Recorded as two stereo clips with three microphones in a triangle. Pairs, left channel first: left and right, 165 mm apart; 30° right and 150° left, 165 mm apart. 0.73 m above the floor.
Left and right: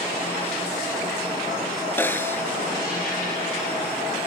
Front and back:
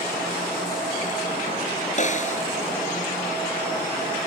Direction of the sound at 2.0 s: 10° left.